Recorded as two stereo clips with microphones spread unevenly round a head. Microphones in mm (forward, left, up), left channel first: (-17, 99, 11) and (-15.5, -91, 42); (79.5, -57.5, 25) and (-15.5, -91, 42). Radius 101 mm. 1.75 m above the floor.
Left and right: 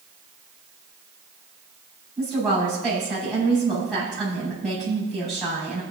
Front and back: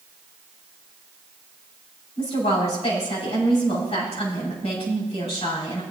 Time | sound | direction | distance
2.2 | a woman speaking | 5° left | 5.5 m